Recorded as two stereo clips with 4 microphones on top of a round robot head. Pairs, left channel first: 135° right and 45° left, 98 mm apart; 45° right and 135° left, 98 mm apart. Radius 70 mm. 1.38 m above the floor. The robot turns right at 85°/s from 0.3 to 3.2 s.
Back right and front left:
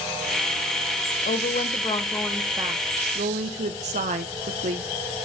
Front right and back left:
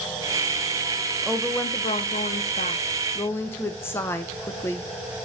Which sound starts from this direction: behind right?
A woman speaking, at 1.2 s.